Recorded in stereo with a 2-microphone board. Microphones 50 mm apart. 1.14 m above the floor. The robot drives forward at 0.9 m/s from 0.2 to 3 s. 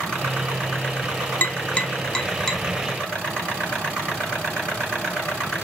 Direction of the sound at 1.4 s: 40° left (ahead or behind).